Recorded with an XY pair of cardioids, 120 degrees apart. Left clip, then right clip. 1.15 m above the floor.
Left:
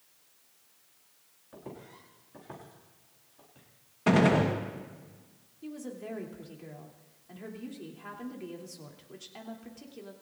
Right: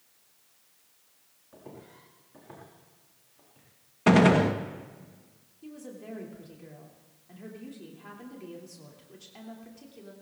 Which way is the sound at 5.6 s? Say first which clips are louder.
Left 3 dB; 20° left.